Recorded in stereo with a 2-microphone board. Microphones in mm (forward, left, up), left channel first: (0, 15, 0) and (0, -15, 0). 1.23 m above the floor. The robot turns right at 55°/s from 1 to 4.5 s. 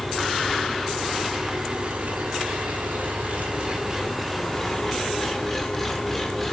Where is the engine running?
170° left, 4 m; by 6.5 s 5° left, 4 m.